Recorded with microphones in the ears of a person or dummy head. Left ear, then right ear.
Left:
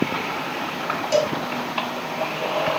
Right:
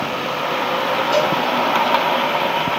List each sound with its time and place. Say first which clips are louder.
1.1 s a cowbell: right 1 dB; 45° left (ahead or behind), 1.8 m